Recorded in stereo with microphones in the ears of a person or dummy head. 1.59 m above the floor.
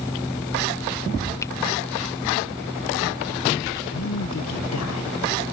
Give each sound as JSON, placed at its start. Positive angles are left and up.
{"t": 0.0, "sound": "a fan", "side_deg": 0}
{"t": 1.4, "sound": "a finger snap", "side_deg": 10}
{"t": 3.9, "sound": "a man speaking", "side_deg": 80}